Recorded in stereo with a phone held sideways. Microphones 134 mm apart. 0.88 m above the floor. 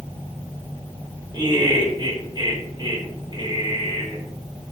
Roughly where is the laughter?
Right.